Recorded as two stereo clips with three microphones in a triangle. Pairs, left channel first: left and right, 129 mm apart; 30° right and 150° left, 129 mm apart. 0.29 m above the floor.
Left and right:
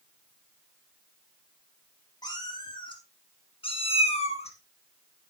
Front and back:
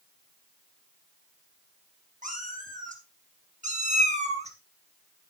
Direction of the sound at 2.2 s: 145° left.